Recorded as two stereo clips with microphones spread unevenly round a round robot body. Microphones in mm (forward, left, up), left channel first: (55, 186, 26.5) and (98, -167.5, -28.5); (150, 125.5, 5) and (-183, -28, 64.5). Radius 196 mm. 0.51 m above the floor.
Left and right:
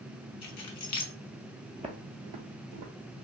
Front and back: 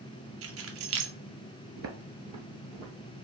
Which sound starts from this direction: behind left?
Keys jangling, at 0.4 s.